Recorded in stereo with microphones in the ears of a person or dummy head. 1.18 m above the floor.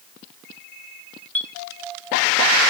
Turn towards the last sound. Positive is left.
turn(degrees=10)  # may be behind; listen again after turning